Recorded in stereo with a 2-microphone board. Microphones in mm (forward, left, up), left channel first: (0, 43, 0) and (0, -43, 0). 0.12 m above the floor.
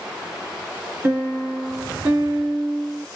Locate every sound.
1.0 s a piano: 20° right (ahead or behind), 1.1 m